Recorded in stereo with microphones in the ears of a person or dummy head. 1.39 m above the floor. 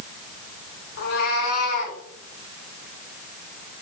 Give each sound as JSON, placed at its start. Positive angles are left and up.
{"t": 1.0, "sound": "a cat meowing", "side_deg": 55, "distance_m": 1.6}